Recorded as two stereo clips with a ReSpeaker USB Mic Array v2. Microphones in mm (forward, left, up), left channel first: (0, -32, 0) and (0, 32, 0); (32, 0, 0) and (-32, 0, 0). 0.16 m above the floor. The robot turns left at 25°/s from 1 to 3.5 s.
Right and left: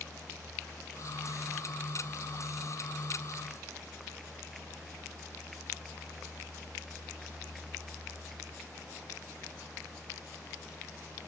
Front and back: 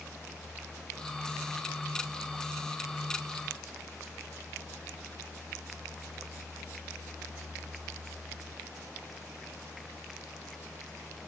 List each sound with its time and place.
Only background noise.